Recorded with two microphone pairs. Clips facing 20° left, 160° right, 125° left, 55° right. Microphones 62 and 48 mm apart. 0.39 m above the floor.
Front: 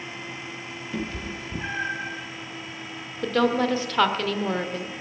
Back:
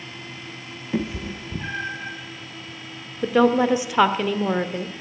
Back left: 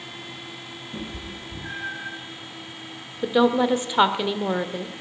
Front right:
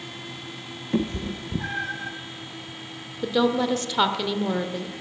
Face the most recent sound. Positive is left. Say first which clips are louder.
# back 4 dB, back left 3 dB
turn(degrees=155)